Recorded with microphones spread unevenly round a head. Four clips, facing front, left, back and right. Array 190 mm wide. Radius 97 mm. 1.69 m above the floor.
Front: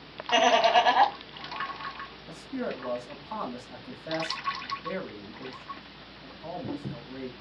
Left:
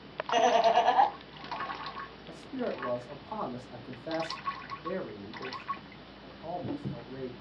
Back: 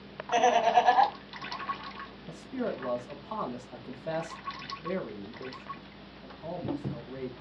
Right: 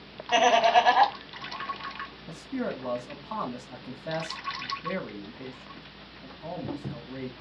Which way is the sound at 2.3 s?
100° right.